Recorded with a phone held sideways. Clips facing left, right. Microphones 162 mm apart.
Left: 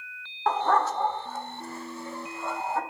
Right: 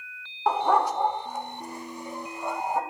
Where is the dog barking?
10° right (ahead or behind), 1.0 m; by 2.8 s 15° right (ahead or behind), 3 m.